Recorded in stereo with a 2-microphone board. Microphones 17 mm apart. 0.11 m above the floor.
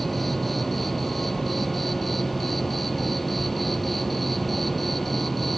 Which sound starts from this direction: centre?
An insect, at 0.0 s.